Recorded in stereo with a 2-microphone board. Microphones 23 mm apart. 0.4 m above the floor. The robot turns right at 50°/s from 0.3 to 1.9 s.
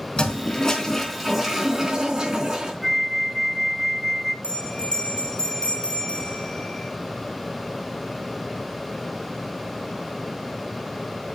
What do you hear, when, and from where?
0.2 s a toilet flushing: 130° left, 4 m; by 2.7 s 150° right, 4 m
2.8 s a flute: 5° right (ahead or behind), 1.9 m
4.4 s a bell: 45° left (ahead or behind), 2.5 m